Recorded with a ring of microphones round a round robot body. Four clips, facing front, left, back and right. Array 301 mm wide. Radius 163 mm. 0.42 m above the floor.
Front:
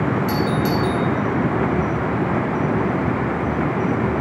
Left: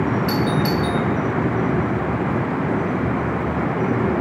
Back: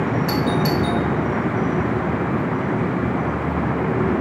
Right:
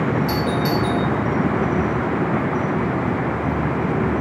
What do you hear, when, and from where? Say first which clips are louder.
0.3 s a doorbell: left 1 dB, even; 130° left, 1.4 m